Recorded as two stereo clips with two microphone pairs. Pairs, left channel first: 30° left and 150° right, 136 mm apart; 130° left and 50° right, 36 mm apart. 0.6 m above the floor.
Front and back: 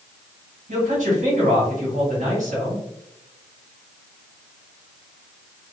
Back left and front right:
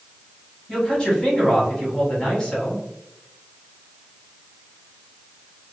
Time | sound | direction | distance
0.7 | a man speaking | 160° right | 1.8 m